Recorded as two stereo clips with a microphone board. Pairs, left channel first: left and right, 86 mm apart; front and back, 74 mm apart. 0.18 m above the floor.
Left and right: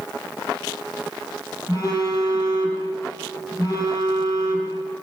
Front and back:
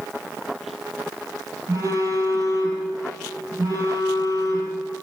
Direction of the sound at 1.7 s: 135° left.